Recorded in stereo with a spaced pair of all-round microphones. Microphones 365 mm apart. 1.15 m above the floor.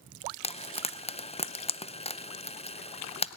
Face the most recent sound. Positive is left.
turn(degrees=15)  # may be behind; listen again after turning